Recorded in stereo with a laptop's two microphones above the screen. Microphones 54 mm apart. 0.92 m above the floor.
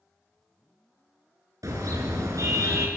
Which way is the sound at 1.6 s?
85° right.